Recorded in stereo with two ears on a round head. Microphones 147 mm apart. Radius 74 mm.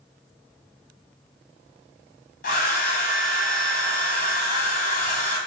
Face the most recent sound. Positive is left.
turn(degrees=55)  # may be behind; listen again after turning